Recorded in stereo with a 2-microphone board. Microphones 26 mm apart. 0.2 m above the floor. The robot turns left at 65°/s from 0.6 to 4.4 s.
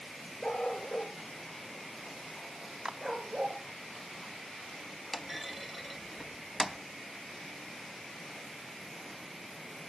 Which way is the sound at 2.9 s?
25° right (ahead or behind).